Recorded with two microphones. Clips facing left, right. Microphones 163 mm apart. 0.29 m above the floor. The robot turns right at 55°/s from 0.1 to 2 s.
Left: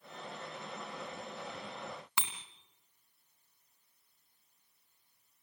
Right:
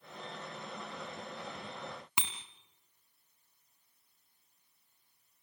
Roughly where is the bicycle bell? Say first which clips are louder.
Right 2 dB; centre.